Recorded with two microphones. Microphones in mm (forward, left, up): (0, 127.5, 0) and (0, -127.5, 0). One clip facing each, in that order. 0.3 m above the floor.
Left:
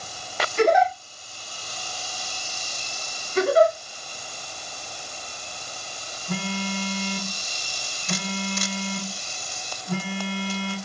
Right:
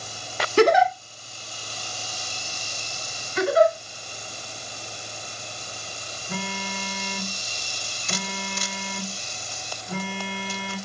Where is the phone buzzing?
80° left, 3 m.